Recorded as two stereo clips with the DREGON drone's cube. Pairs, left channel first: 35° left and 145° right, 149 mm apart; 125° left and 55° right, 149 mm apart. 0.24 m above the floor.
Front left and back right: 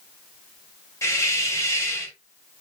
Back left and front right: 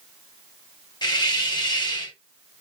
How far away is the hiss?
About 1.0 m.